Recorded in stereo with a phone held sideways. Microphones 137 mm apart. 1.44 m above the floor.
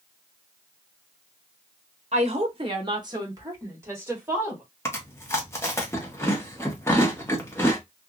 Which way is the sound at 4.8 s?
20° left (ahead or behind).